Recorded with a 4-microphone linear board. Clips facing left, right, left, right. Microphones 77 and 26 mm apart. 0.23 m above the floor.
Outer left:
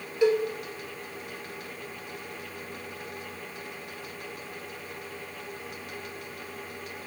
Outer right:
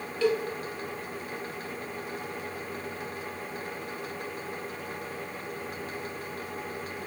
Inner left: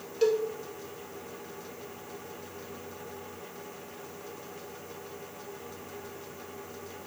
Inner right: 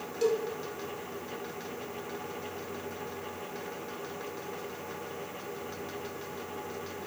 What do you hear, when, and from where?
0.2 s a cowbell: 15° left (ahead or behind), 0.7 m